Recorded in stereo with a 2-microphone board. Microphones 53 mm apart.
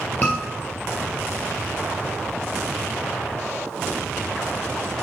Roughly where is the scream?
Left.